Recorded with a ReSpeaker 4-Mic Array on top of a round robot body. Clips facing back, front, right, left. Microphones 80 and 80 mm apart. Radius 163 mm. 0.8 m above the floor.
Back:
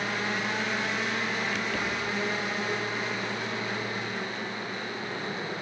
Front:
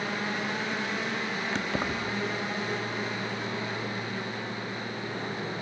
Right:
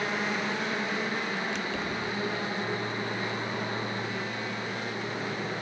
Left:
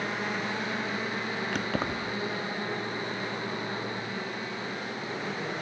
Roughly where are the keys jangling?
Ahead left.